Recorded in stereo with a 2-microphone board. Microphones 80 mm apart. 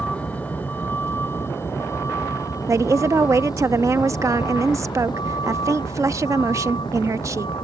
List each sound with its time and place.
0.0 s a vehicle: 15° left (ahead or behind); by 7.6 s 85° left
2.7 s a woman speaking: 40° right (ahead or behind)